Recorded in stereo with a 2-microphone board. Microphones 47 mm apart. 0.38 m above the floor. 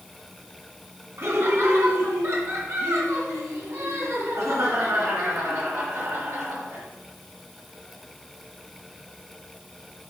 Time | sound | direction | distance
1.2 | laughter | 60° right (ahead or behind) | 3 m